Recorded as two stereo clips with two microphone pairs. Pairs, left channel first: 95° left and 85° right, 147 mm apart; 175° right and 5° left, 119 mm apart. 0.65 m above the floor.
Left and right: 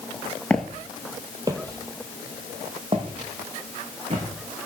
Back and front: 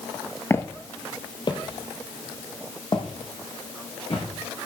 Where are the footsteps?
165° left, 0.6 m; by 4.3 s 130° right, 2.5 m.